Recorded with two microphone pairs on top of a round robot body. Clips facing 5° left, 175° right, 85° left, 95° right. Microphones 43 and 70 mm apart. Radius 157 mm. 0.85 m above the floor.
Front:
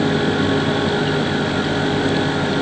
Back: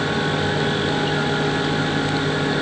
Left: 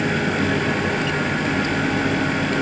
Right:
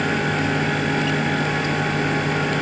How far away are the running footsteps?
No running footsteps in this recording.